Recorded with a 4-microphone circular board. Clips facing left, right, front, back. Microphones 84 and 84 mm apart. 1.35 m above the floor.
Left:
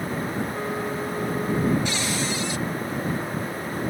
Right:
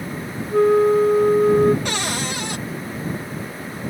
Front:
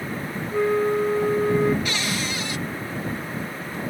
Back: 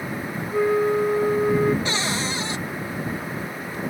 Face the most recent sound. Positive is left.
turn(degrees=-120)